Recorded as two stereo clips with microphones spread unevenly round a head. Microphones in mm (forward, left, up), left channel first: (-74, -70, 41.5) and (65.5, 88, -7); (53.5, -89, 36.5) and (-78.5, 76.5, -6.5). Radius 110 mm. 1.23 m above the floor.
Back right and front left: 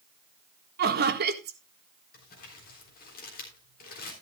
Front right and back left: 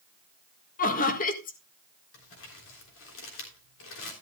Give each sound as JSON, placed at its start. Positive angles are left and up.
{"t": 0.8, "sound": "laughter", "azimuth_deg": 5, "distance_m": 1.6}
{"t": 2.1, "sound": "crumpling", "azimuth_deg": -80, "distance_m": 3.5}